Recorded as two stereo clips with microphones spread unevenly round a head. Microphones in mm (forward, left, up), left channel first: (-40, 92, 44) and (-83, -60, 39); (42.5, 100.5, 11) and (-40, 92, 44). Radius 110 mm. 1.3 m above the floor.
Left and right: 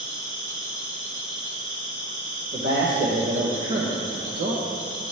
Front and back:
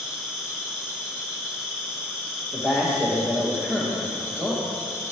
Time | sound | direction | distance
0.0 | an insect | 35° right | 1.5 m
2.5 | a man speaking | 70° right | 1.6 m